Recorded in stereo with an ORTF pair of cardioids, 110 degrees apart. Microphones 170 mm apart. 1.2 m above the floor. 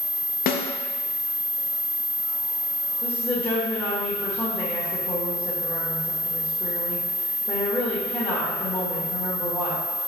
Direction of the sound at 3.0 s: 20° left.